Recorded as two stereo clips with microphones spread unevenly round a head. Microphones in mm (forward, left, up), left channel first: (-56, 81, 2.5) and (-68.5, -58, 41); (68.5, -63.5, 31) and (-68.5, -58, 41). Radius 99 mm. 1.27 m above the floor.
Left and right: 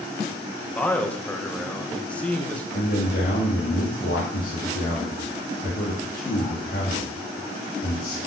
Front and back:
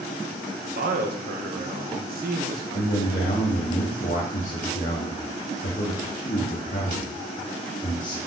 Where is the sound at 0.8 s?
165° left, 1.4 m.